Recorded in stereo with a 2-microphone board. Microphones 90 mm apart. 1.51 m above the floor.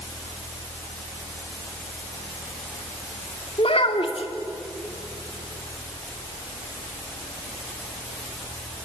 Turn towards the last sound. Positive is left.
turn(degrees=75)  # may be behind; listen again after turning